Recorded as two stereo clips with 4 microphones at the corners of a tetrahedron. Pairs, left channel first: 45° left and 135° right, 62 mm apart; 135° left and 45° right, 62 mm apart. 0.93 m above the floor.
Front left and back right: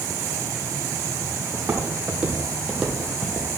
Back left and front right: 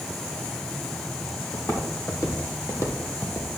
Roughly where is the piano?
No piano in this recording.